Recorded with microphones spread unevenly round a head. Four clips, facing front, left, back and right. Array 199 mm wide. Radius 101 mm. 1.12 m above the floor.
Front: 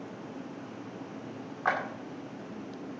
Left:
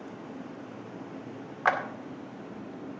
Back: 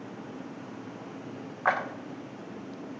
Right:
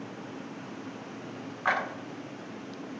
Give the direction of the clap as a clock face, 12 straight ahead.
7 o'clock.